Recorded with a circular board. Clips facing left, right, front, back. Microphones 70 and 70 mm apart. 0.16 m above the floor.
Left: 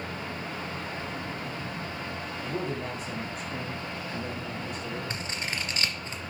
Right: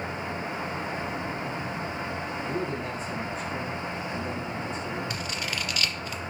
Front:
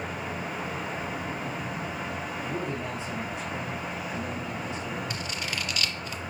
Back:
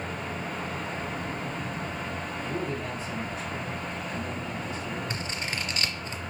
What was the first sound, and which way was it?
A man speaking, 70° left.